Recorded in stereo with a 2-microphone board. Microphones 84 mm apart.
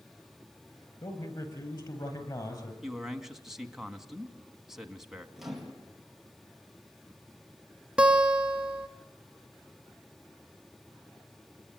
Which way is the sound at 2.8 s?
5° right (ahead or behind).